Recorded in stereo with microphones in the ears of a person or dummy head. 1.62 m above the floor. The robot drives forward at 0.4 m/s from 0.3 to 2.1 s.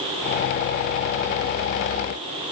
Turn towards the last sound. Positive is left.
No sound to turn to.